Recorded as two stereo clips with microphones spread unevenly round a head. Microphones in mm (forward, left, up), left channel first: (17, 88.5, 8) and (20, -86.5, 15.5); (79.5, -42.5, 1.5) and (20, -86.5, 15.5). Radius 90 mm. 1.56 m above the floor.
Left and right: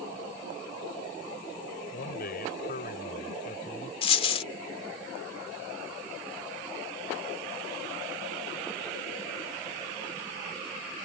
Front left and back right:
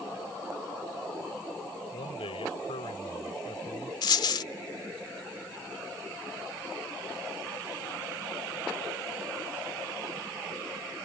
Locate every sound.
1.9 s a man speaking: 55° left; by 3.9 s 45° left
4.0 s a dropped coin: 40° left